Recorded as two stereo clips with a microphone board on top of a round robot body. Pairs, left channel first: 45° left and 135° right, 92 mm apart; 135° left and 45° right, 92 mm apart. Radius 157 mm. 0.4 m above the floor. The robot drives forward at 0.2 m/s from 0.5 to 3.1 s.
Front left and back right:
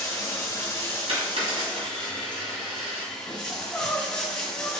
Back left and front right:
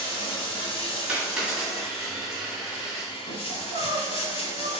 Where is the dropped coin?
125° right, 1.8 m; by 3.1 s 135° right, 2 m.